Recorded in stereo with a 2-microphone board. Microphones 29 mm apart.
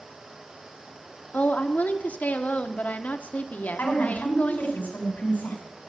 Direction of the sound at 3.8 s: 75° left (ahead or behind).